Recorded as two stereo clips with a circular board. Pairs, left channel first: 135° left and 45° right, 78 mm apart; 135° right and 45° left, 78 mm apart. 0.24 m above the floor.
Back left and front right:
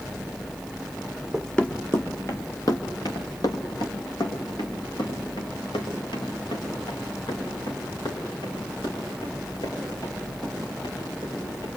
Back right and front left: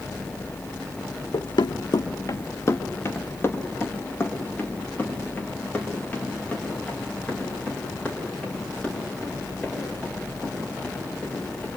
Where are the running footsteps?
130° right, 0.9 m; by 11.7 s 150° left, 11 m.